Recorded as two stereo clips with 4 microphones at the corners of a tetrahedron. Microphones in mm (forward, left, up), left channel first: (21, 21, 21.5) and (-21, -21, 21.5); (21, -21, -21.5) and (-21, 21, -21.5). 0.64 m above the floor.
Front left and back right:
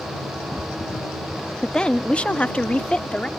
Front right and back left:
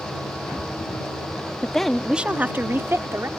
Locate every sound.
1.6 s a woman speaking: 15° right; by 3.3 s 115° left